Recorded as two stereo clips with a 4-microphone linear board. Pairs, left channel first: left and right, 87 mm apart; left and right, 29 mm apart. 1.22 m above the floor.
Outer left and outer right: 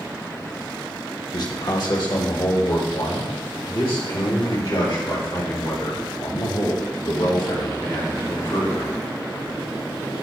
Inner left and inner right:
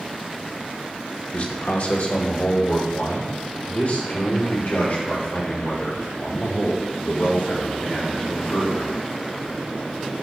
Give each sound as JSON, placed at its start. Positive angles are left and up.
{"t": 1.3, "sound": "a man speaking", "side_deg": 45, "distance_m": 1.0}